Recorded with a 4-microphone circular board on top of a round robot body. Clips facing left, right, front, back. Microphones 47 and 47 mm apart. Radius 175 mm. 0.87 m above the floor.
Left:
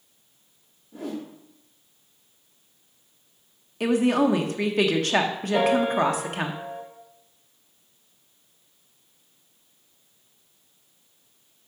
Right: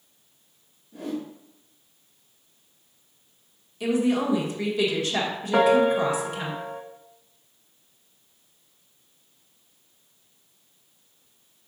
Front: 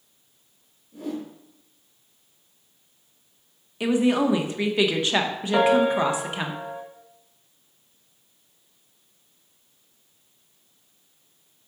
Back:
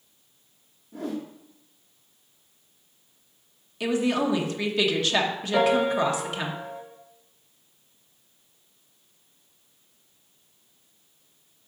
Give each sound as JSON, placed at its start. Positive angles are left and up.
{"t": 0.9, "sound": "a whoosh", "azimuth_deg": 145, "distance_m": 0.6}
{"t": 3.8, "sound": "a woman speaking", "azimuth_deg": 65, "distance_m": 1.1}
{"t": 5.5, "sound": "a piano", "azimuth_deg": -65, "distance_m": 1.3}